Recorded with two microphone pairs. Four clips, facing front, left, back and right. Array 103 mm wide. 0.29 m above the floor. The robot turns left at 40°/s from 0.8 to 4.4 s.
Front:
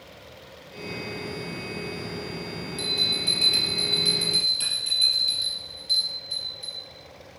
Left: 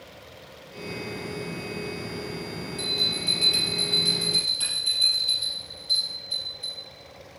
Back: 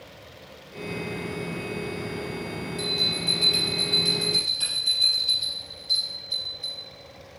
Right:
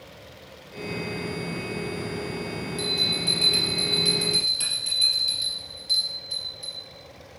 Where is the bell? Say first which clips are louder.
Right 3 dB, back 2 dB; 5° left, 4 m; by 6.8 s 60° right, 4 m.